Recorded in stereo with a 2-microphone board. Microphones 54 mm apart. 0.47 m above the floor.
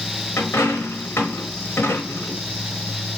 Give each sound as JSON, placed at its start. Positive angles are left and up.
{"t": 0.4, "sound": "a dropped coin", "side_deg": 55, "distance_m": 0.8}